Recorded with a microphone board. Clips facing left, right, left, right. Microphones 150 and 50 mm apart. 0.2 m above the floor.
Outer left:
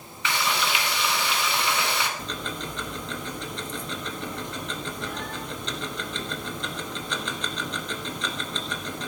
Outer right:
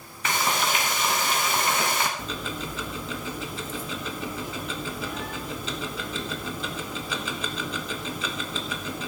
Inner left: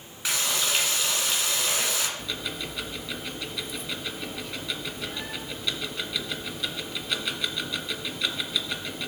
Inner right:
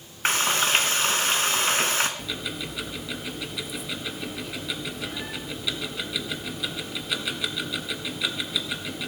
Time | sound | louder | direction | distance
0.2 | frying | outer right 1 dB, inner right 5 dB | 45° right (ahead or behind) | 2 m
2.2 | ticking | outer right 1 dB, inner right 1 dB | 5° right (ahead or behind) | 1.4 m